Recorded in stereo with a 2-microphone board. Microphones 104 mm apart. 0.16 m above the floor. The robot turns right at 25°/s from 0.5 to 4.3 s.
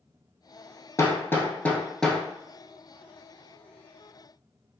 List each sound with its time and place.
1.0 s hammering: 30° left (ahead or behind), 0.8 m; by 2.2 s centre (ahead or behind), 0.8 m